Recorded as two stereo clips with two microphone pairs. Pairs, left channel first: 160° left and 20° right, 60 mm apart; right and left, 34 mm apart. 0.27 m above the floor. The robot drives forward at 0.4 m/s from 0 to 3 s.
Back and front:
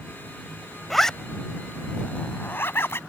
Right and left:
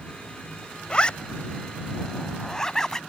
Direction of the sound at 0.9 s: 110° right.